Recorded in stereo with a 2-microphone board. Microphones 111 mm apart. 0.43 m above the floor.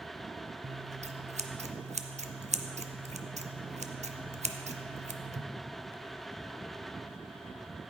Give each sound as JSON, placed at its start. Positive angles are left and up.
{"t": 0.6, "sound": "scissors", "side_deg": -70, "distance_m": 0.5}